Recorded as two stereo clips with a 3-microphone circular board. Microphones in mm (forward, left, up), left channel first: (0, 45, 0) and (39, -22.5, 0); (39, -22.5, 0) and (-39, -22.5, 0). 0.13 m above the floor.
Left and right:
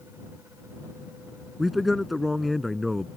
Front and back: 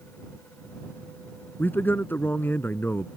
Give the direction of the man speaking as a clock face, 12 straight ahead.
11 o'clock.